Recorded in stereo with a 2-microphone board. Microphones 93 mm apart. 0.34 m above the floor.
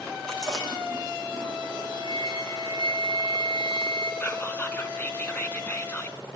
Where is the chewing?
10° left (ahead or behind), 6.5 m.